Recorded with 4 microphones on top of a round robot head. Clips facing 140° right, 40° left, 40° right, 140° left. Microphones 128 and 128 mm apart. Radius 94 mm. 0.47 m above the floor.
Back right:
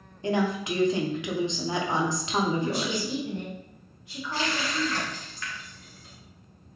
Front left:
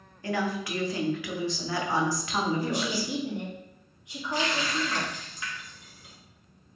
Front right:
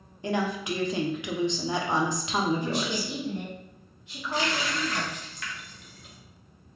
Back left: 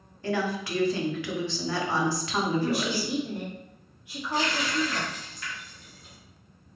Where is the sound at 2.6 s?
75° left, 1.2 m.